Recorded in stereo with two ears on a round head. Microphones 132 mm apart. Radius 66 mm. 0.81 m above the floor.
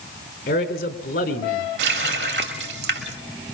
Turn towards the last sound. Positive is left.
turn(degrees=-85)